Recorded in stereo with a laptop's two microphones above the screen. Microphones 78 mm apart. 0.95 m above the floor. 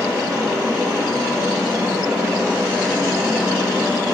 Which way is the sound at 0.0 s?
35° right (ahead or behind).